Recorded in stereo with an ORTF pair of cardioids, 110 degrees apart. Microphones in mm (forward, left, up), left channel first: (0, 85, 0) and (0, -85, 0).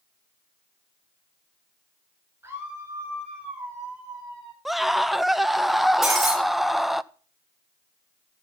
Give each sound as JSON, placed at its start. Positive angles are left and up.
{"t": 2.4, "sound": "a scream", "azimuth_deg": -10, "distance_m": 9.0}
{"t": 4.7, "sound": "a scream", "azimuth_deg": 0, "distance_m": 0.7}
{"t": 6.0, "sound": "breaking glass", "azimuth_deg": 0, "distance_m": 5.0}